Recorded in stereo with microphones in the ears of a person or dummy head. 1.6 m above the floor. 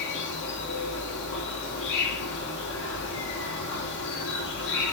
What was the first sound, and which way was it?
An insect, 65° left (ahead or behind).